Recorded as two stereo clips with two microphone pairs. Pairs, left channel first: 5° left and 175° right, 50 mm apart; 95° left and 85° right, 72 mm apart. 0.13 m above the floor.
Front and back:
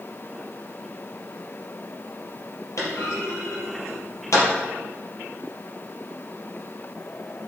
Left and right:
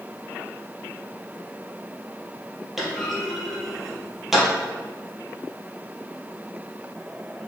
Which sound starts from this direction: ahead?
A clunk, at 2.8 s.